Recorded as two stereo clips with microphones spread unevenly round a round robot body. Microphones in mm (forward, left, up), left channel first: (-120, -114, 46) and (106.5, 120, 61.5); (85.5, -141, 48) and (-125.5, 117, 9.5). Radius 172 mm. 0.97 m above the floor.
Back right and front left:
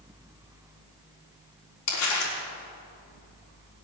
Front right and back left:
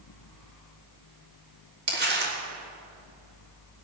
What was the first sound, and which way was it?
Crumpling, 170° right.